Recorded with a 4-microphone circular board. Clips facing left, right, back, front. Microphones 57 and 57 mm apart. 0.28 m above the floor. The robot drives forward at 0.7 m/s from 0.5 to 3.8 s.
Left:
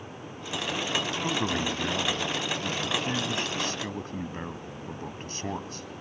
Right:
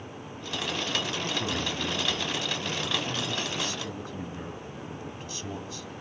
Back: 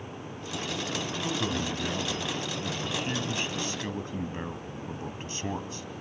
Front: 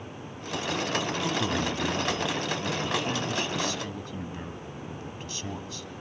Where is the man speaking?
60° left, 2 m; by 5.9 s 125° left, 2 m.